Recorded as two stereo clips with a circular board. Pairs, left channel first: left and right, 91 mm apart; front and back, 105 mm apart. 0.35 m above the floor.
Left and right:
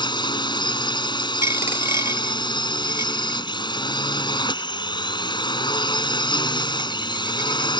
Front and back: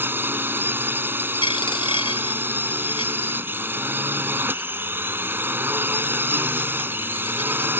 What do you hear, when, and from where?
0.0 s a drone: 110° left
1.4 s a dropped coin: 30° right